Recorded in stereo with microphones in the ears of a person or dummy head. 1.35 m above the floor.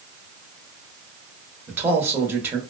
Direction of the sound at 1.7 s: 15° right (ahead or behind).